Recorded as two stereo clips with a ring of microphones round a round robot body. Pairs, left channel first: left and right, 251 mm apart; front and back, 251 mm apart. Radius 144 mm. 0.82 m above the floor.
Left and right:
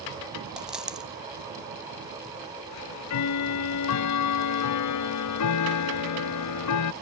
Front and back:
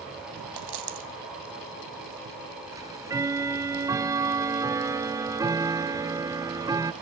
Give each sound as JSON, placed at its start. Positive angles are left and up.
{"t": 0.6, "sound": "a dropped coin", "azimuth_deg": 180, "distance_m": 2.5}
{"t": 2.7, "sound": "ticking", "azimuth_deg": 100, "distance_m": 0.6}